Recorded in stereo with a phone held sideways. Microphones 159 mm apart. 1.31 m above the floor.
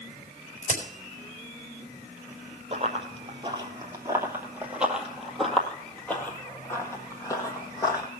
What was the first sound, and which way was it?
A crack, 55° right (ahead or behind).